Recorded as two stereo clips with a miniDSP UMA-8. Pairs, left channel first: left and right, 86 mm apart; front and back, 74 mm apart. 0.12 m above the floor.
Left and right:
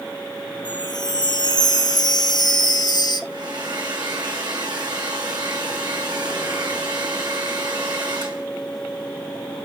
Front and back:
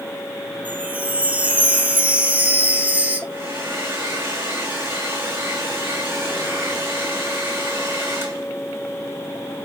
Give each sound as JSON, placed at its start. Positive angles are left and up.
{"t": 0.7, "sound": "a chime", "azimuth_deg": 115, "distance_m": 0.9}
{"t": 3.3, "sound": "a hair dryer", "azimuth_deg": -120, "distance_m": 3.0}